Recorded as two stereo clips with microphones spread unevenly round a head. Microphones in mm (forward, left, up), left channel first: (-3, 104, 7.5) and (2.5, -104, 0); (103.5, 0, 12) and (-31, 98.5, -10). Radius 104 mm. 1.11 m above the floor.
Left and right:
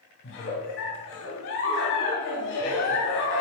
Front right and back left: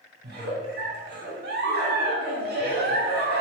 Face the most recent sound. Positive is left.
turn(degrees=120)